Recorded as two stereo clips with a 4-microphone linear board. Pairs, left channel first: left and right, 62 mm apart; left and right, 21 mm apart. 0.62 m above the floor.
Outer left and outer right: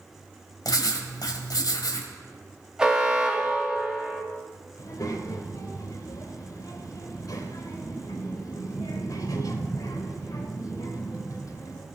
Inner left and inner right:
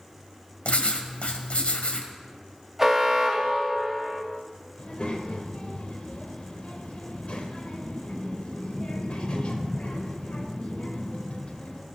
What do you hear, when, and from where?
0.7 s writing: 75° left (ahead or behind), 1.6 m
2.8 s an alarm: 10° right (ahead or behind), 1.6 m
4.8 s a child speaking: 60° left (ahead or behind), 2.0 m